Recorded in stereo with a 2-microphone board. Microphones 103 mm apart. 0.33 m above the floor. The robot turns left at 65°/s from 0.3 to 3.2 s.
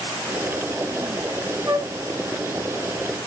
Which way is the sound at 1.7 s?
30° right (ahead or behind).